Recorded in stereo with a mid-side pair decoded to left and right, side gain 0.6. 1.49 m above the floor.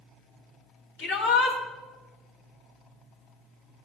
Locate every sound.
1.0 s a shout: 65° left, 3.5 m